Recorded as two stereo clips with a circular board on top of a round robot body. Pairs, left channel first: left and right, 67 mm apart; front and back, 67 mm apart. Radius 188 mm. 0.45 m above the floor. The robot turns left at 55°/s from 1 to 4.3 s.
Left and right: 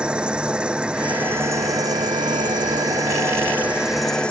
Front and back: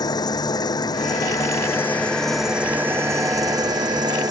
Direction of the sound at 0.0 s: 15° right.